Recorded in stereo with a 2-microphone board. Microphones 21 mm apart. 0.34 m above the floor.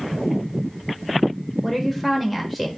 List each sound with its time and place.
1.6 s a woman speaking: centre (ahead or behind), 0.8 m